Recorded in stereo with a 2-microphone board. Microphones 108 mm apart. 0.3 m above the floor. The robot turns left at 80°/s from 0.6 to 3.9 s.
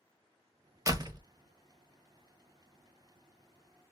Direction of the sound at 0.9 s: 30° right (ahead or behind).